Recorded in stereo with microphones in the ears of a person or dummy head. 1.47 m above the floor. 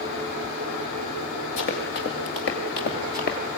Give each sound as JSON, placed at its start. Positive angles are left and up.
{"t": 1.6, "sound": "running footsteps", "side_deg": 60, "distance_m": 2.5}